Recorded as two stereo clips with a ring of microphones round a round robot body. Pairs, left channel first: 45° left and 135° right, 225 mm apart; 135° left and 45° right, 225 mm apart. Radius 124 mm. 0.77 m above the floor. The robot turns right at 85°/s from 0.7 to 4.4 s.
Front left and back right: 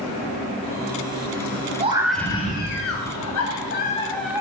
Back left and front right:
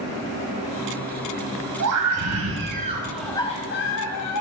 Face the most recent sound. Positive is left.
turn(degrees=150)